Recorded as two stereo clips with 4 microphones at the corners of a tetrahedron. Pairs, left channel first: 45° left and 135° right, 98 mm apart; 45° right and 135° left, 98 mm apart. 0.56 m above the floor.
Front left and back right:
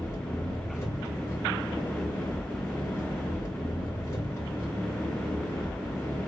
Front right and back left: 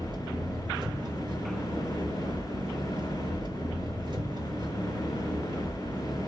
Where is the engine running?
105° left, 5.5 m.